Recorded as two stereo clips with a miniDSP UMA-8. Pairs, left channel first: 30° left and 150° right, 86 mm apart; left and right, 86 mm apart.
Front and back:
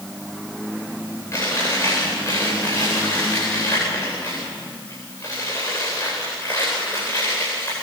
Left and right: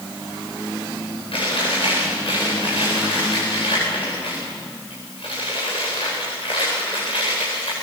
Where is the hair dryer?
No hair dryer in this recording.